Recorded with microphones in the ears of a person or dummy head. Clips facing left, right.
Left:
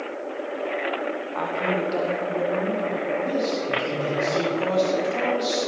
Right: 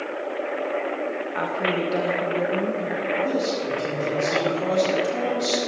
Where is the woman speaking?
20° right (ahead or behind), 1.6 m.